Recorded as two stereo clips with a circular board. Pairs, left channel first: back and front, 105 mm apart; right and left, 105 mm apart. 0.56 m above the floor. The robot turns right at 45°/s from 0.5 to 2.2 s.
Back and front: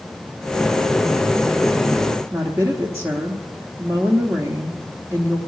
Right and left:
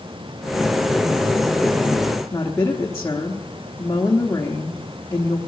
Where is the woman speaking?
45° right, 1.1 m.